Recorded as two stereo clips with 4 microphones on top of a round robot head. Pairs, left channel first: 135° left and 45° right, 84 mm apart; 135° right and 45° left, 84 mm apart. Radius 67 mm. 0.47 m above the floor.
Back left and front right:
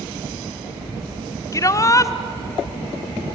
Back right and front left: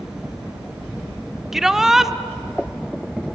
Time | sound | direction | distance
1.5 | a shout | 125° left | 1.3 m